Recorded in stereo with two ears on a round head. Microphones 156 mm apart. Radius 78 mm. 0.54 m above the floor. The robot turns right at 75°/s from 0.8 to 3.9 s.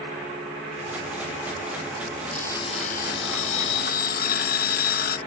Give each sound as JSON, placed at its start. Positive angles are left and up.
{"t": 2.3, "sound": "an alarm clock", "azimuth_deg": 5}